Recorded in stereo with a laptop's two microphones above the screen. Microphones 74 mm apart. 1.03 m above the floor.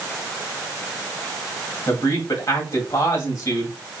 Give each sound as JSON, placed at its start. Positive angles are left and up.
{"t": 1.9, "sound": "a man speaking", "side_deg": 55, "distance_m": 2.0}